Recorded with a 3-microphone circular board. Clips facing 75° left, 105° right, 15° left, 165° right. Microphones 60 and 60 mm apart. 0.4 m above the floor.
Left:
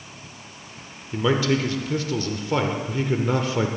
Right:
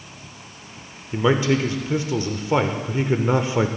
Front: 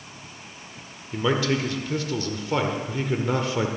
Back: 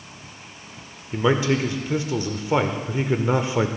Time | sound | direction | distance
1.1 | a man speaking | 130° right | 0.8 m